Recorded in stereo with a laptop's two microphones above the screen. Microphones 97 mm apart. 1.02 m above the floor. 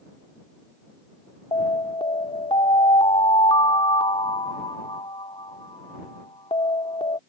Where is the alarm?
70° left (ahead or behind).